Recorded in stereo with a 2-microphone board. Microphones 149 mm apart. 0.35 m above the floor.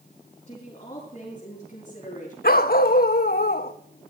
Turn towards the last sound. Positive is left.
turn(degrees=90)